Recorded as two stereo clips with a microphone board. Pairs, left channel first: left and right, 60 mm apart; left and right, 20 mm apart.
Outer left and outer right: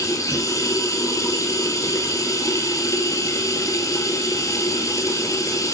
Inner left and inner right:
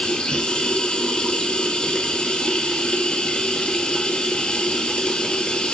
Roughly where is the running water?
Left.